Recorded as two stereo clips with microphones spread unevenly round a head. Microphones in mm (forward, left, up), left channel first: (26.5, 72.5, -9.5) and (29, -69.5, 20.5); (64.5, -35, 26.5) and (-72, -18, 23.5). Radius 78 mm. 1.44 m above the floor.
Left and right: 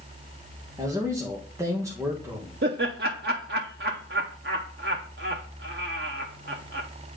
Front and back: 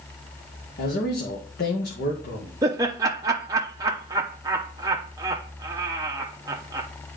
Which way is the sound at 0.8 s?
20° right.